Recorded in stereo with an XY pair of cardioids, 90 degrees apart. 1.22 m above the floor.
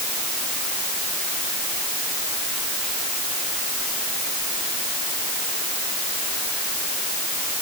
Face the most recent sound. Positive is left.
No sound to turn to.